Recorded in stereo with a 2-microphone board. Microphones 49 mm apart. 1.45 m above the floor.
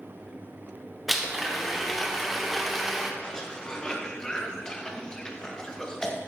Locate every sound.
1.1 s a blender: centre (ahead or behind), 0.9 m
3.2 s a cough: 15° left (ahead or behind), 1.3 m